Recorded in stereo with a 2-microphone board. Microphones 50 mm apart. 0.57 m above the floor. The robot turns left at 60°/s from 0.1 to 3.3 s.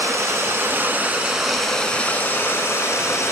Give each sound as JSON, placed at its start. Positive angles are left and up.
{"t": 0.0, "sound": "running water", "azimuth_deg": -90, "distance_m": 1.2}